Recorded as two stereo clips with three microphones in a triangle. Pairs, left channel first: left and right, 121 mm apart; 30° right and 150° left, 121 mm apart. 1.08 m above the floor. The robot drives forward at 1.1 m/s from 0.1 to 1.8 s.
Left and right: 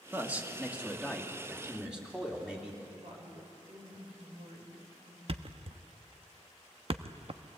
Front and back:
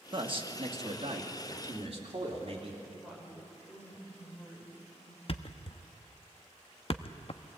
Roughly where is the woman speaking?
Behind right.